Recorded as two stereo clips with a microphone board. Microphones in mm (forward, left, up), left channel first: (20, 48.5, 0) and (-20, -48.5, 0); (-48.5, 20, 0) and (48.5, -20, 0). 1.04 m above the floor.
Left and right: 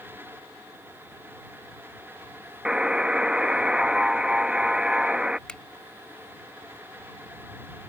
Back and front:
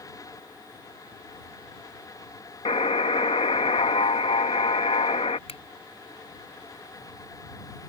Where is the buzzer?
165° left.